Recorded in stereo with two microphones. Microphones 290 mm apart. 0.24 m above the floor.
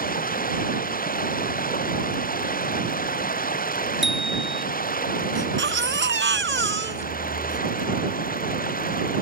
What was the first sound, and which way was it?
Running water, 30° left (ahead or behind).